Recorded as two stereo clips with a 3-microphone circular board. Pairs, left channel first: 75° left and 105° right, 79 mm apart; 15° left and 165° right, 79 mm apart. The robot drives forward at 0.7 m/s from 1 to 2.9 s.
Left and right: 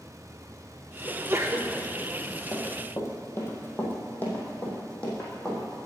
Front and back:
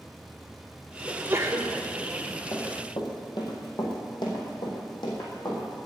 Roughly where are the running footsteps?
Ahead left.